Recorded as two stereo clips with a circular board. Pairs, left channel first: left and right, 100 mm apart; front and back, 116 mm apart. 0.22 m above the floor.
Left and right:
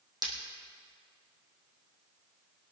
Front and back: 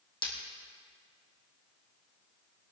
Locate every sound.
0.2 s breaking glass: 40° right, 3 m